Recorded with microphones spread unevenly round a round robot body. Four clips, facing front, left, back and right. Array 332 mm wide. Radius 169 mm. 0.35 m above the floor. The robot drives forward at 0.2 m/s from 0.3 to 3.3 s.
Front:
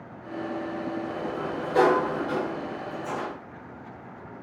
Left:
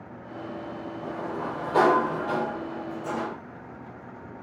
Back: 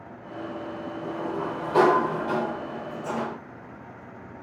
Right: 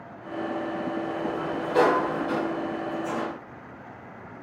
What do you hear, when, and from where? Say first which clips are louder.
1.0 s a sliding door: right 3 dB, back 1 dB; 160° left, 2 m; by 3.4 s 165° left, 2.5 m